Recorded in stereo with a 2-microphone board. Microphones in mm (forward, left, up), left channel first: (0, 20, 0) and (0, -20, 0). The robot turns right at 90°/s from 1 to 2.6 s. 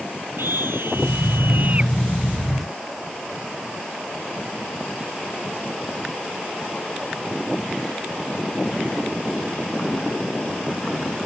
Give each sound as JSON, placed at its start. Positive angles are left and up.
{"t": 0.4, "sound": "a scream", "azimuth_deg": -105}